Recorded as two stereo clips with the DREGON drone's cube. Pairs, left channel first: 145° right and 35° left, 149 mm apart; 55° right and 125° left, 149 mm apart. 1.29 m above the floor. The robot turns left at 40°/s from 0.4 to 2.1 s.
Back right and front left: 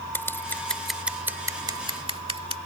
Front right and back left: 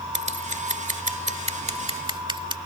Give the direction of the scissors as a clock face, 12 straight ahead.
7 o'clock.